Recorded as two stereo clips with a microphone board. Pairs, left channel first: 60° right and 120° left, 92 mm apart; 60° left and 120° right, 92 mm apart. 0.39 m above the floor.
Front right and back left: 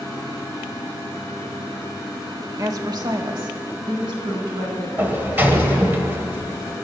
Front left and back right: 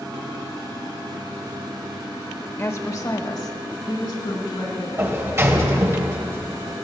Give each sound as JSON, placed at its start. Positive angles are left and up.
{"t": 2.6, "sound": "a woman speaking", "azimuth_deg": 105, "distance_m": 1.0}
{"t": 5.0, "sound": "a sliding door", "azimuth_deg": -175, "distance_m": 1.5}